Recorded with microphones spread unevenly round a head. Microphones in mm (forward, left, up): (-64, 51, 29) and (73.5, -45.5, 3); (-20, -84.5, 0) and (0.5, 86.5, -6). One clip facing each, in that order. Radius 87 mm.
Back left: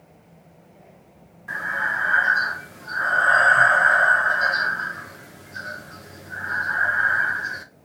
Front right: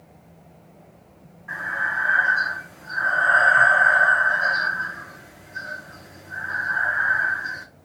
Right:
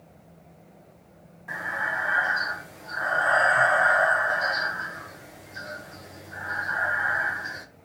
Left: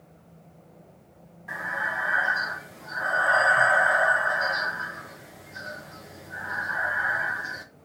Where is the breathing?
170° left, 0.8 m.